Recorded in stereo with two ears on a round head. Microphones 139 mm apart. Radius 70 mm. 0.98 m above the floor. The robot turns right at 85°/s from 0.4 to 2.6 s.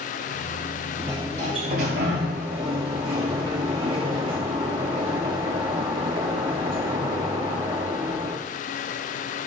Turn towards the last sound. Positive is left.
turn(degrees=-30)